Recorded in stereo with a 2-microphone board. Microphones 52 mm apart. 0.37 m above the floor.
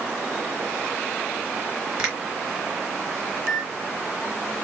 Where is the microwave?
15° right (ahead or behind), 2.5 m.